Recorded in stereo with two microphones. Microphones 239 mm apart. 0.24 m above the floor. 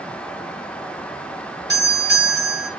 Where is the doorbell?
45° right (ahead or behind), 3 m.